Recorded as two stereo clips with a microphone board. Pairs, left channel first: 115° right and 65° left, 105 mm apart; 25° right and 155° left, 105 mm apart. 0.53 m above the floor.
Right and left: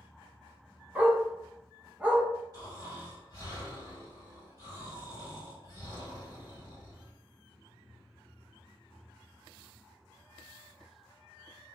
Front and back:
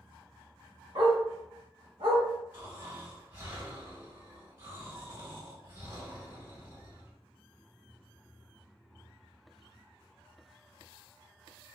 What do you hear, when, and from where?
0.9 s a dog barking: 140° left, 1.0 m
2.5 s snoring: 95° left, 1.9 m